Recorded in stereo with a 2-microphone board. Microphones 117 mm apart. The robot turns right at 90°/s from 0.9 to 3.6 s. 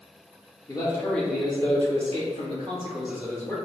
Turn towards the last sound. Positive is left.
turn(degrees=30)